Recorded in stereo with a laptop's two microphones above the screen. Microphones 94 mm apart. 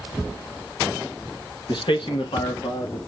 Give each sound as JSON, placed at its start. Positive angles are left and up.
{"t": 1.7, "sound": "a man speaking", "side_deg": 55, "distance_m": 1.1}